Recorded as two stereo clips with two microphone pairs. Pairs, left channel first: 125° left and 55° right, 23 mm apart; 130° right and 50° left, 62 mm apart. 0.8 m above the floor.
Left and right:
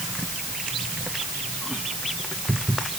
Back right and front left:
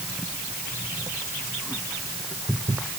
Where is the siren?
I don't hear a siren.